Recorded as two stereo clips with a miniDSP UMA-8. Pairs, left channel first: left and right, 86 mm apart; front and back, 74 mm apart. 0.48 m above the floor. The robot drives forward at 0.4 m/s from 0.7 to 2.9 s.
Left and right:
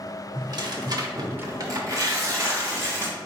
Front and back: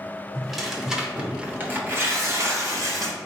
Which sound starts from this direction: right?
Tearing paper, at 0.3 s.